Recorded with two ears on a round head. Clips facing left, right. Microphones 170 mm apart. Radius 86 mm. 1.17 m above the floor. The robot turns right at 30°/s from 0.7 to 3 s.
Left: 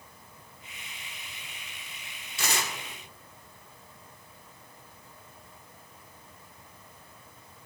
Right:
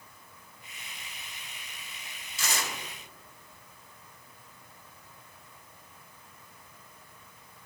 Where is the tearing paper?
50° left (ahead or behind), 1.2 m; by 2.7 s 55° left (ahead or behind), 1.2 m.